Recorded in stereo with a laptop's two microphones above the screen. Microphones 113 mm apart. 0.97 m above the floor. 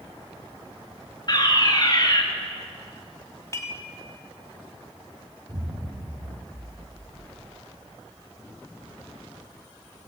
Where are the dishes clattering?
25° left (ahead or behind), 2 m.